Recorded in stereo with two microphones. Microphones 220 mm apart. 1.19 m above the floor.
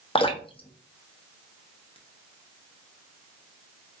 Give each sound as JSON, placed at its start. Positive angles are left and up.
{"t": 0.1, "sound": "dripping", "side_deg": 25, "distance_m": 0.6}